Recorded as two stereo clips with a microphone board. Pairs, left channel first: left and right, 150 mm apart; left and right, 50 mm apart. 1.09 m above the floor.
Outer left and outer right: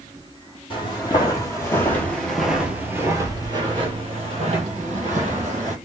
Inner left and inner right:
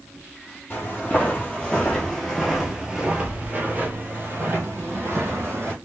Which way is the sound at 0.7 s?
35° left (ahead or behind).